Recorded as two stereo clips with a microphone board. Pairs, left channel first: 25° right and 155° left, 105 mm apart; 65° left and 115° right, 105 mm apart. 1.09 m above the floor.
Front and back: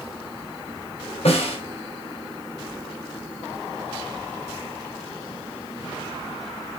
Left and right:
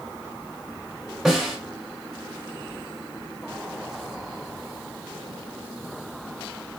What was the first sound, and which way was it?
A snare drum, 25° right.